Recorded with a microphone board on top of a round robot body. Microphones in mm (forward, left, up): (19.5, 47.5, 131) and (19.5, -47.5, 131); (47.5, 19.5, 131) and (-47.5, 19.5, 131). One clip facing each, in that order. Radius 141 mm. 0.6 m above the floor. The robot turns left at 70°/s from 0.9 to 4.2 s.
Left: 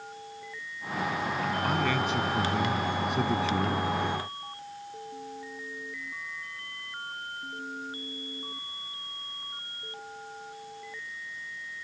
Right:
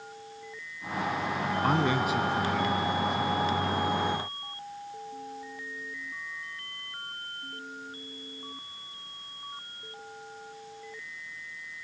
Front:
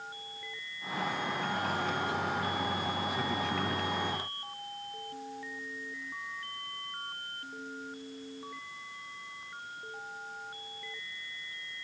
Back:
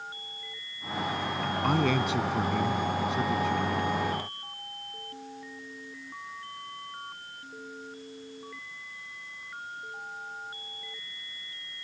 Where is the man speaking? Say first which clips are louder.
Right 3 dB, back 6 dB; 140° right; by 3.8 s 65° left.